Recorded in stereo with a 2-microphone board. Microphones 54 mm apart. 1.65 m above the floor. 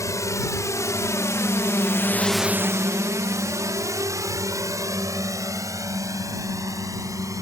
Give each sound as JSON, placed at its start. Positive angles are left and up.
{"t": 0.0, "sound": "a drone", "side_deg": 75}